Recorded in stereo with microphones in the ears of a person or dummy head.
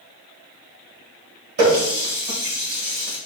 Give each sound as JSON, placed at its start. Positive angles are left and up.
{"t": 1.6, "sound": "a running tap", "side_deg": -55, "distance_m": 1.4}